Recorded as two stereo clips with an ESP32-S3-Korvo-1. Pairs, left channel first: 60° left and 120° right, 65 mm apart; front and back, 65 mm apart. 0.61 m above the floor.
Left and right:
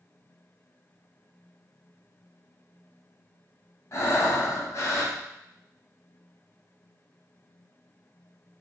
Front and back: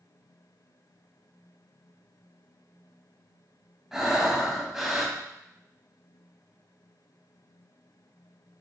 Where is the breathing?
95° left, 0.8 m.